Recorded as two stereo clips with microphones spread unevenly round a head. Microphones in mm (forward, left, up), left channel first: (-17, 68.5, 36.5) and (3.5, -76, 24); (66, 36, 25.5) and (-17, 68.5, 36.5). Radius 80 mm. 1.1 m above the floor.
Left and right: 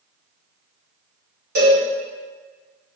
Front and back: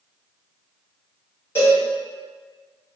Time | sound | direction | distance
1.6 | a cowbell | 95° right | 1.6 m